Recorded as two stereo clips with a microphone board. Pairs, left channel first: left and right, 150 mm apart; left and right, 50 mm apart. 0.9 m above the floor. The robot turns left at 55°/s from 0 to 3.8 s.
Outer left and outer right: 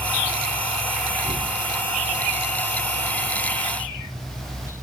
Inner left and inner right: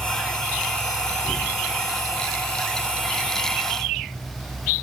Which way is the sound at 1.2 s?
75° left (ahead or behind).